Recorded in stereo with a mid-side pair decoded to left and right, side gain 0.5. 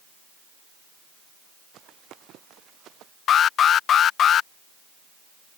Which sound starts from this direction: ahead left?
An alarm, at 3.3 s.